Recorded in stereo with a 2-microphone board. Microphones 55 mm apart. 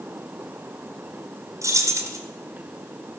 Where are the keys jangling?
70° right (ahead or behind), 1.9 m.